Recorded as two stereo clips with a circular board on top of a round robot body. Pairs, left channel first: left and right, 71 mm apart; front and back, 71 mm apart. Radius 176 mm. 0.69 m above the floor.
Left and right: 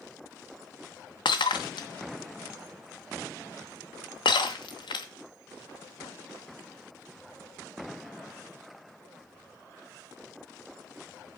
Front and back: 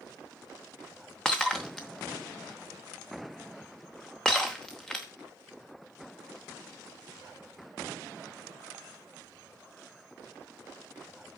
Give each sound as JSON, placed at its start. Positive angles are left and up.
{"t": 1.2, "sound": "breaking glass", "azimuth_deg": 85, "distance_m": 0.7}